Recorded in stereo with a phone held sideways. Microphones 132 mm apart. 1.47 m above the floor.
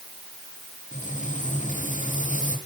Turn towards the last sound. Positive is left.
turn(degrees=70)  # may be behind; listen again after turning